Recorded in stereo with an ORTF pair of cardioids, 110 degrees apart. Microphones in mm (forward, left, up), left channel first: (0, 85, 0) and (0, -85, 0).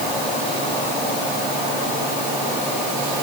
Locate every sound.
Only background noise.